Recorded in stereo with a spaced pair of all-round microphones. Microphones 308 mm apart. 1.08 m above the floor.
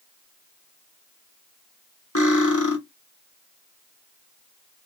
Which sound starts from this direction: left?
Cutlery clinking, at 2.1 s.